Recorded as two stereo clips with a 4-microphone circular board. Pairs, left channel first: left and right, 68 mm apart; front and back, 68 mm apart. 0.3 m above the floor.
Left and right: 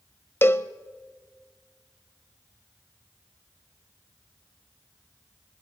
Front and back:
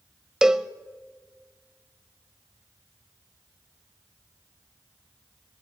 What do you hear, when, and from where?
0.4 s a cowbell: 105° left, 0.7 m